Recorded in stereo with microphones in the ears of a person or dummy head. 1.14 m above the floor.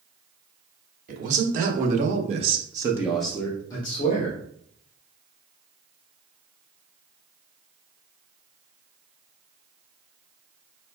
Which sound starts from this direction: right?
A man speaking, at 1.1 s.